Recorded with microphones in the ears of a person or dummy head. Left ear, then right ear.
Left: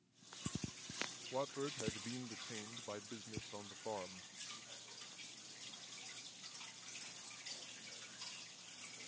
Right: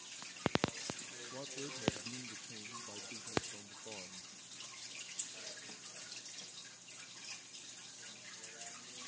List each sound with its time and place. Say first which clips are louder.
1.3 s a man speaking: left 4 dB; 25° left (ahead or behind)